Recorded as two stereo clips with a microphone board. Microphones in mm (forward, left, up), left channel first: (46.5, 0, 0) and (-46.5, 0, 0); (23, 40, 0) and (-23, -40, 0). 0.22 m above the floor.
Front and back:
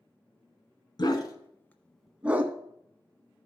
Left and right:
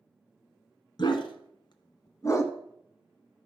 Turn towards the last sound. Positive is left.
turn(degrees=120)